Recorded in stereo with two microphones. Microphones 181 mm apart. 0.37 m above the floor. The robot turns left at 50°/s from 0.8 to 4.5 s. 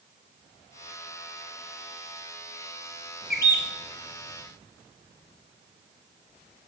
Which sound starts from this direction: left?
A bird, at 3.3 s.